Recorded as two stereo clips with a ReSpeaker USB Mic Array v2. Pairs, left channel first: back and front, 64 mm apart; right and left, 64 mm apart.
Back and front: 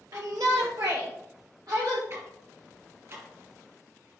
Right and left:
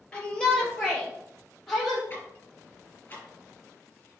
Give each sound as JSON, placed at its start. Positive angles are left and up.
{"t": 0.1, "sound": "a shout", "azimuth_deg": -20, "distance_m": 3.0}
{"t": 2.1, "sound": "ticking", "azimuth_deg": -35, "distance_m": 3.5}